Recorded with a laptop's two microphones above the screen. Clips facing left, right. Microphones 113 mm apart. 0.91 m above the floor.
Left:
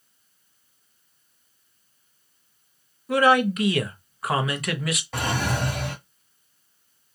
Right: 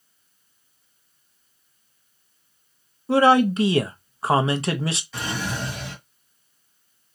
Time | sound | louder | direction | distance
3.1 | a man speaking | right 3 dB | 30° right (ahead or behind) | 0.6 m
5.1 | a drawer | left 3 dB | 60° left (ahead or behind) | 1.3 m